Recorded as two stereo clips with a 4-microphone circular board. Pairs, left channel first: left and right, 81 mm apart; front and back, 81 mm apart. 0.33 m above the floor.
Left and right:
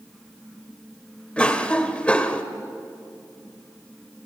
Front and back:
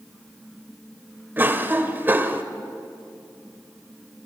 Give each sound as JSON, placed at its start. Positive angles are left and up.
{"t": 1.4, "sound": "a cough", "azimuth_deg": 150, "distance_m": 1.2}